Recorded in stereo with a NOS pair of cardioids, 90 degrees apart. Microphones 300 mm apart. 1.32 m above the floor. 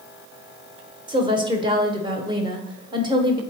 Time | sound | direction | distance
1.1 | a woman speaking | 15° right | 1.1 m